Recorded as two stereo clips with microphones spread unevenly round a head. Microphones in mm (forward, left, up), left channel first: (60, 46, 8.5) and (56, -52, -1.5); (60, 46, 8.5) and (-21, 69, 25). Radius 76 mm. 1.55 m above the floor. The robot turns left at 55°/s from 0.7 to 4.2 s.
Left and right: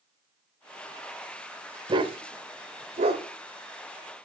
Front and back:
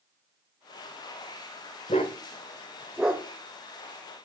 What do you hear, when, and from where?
1.9 s a dog barking: 55° right, 2 m; by 3.2 s 130° right, 2 m